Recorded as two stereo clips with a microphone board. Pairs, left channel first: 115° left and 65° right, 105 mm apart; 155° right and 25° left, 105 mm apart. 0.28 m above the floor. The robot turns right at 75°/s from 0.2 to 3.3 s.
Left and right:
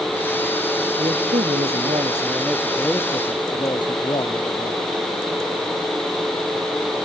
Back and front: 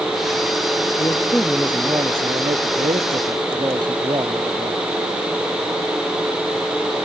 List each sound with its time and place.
1.0 s a man speaking: 105° right; by 4.8 s 70° left